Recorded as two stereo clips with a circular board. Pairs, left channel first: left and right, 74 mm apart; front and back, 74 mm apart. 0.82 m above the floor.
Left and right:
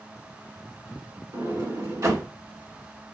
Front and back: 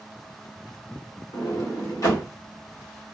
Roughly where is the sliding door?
Ahead right.